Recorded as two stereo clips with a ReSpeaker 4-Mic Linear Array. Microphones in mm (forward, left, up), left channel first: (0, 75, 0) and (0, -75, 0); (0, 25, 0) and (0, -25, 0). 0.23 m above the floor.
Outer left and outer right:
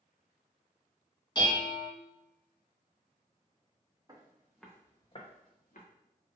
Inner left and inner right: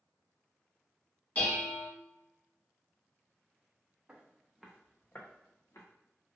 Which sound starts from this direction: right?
Footsteps, at 4.1 s.